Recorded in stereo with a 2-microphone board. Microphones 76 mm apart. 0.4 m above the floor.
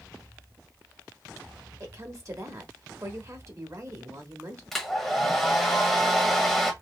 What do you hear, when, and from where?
1.8 s a woman speaking: 40° right (ahead or behind), 1.0 m
4.7 s a hair dryer: centre (ahead or behind), 1.2 m